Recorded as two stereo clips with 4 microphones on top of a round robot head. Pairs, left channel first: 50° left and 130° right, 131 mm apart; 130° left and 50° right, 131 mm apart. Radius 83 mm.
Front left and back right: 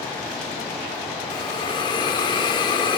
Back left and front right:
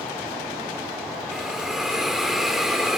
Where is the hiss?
35° left, 0.7 m.